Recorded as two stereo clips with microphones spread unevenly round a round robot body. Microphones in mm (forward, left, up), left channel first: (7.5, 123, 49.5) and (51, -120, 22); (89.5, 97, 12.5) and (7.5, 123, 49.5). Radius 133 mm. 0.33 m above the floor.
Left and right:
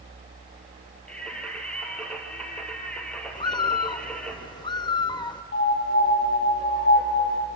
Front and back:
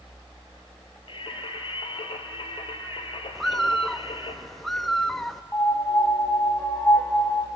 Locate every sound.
1.1 s singing: 15° left, 2 m
3.4 s a bird: 30° left, 0.5 m
5.5 s a piano: 55° left, 1.9 m